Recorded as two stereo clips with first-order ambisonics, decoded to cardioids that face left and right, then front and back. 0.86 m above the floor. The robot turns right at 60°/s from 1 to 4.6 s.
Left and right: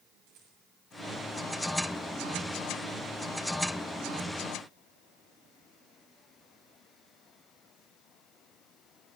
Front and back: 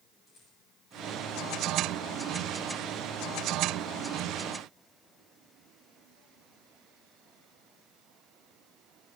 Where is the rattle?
60° right, 6.5 m.